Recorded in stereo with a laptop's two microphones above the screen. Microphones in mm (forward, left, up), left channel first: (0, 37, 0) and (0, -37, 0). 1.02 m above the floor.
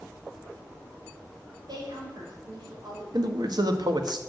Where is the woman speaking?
65° right (ahead or behind), 5 m.